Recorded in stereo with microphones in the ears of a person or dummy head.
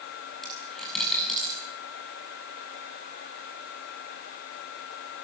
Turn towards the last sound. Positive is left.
turn(degrees=5)  # may be behind; listen again after turning